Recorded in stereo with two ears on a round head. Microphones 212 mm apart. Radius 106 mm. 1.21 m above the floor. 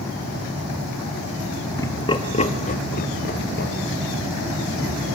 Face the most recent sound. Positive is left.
turn(degrees=45)  # may be behind; listen again after turning